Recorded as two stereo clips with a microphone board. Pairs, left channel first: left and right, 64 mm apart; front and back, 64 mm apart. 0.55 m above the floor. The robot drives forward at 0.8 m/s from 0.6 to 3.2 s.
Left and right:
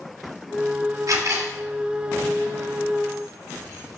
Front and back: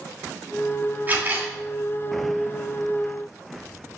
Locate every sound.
1.1 s a camera shutter: 120° right, 2.5 m; by 1.5 s 125° right, 3 m